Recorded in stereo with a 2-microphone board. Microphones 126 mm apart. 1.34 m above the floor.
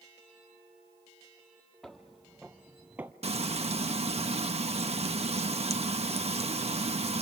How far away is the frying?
About 0.9 m.